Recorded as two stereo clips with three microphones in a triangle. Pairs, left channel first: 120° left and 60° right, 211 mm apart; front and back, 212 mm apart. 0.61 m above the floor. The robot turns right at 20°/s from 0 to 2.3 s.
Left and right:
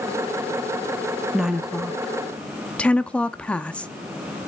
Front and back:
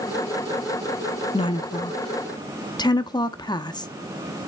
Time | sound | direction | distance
1.3 | a woman speaking | 20° left | 0.6 m